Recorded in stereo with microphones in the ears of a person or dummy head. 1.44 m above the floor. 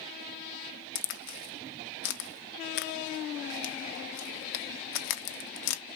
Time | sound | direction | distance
0.9 | a crack | 60° left (ahead or behind) | 0.5 m